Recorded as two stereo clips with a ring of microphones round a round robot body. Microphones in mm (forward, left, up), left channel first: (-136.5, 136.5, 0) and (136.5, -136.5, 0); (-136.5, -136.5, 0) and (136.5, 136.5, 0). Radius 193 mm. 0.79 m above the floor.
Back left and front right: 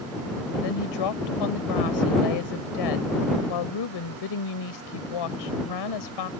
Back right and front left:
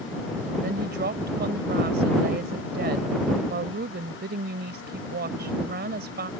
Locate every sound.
0.6 s a woman speaking: 110° left